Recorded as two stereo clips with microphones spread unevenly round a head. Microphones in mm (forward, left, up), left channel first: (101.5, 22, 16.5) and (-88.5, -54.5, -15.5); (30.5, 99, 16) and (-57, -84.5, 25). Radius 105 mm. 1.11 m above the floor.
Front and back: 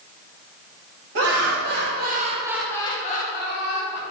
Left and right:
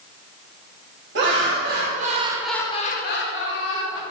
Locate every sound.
1.1 s laughter: 140° right, 1.6 m; by 4.0 s 65° left, 1.8 m